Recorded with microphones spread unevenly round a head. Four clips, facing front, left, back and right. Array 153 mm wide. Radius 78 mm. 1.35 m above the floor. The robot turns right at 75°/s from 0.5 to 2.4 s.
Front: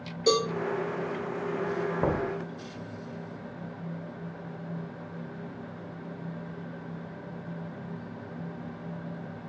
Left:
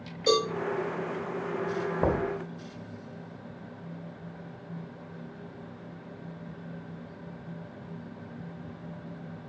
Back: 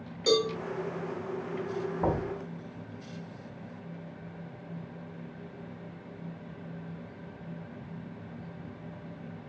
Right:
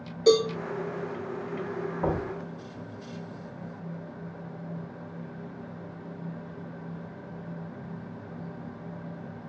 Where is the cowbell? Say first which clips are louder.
Right 5 dB, front 1 dB; 80° right, 1.4 m.